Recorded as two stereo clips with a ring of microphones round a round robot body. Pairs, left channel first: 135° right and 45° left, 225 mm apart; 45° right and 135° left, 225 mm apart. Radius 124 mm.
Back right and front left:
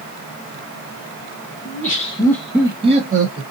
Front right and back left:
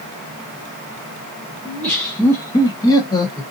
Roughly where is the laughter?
Behind right.